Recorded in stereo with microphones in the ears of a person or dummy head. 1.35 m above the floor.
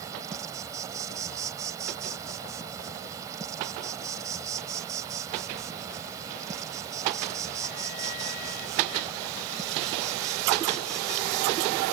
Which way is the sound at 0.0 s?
20° right (ahead or behind).